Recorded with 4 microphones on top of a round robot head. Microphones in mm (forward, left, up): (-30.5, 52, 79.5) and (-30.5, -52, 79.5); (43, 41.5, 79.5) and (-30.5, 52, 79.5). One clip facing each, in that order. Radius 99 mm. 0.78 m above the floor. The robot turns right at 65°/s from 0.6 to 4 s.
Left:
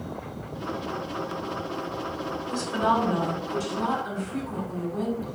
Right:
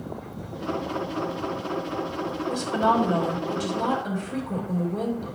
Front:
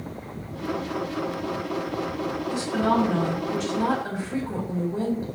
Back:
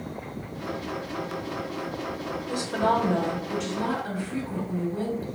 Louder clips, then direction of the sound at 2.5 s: Right 2 dB, even; 170° right.